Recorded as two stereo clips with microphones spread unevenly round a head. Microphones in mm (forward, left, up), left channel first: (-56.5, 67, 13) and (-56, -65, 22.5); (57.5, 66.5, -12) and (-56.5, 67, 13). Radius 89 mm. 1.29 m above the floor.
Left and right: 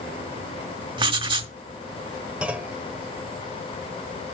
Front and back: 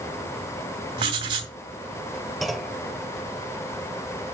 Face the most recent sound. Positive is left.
turn(degrees=-140)